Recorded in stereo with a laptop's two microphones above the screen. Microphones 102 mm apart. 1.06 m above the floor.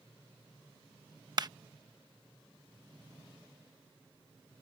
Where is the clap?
40° right (ahead or behind).